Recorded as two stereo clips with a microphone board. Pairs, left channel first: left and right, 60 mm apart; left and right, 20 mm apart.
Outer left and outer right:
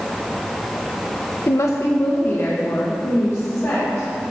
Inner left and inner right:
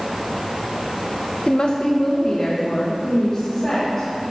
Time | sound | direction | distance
1.5 | a woman speaking | 55° left (ahead or behind) | 0.5 m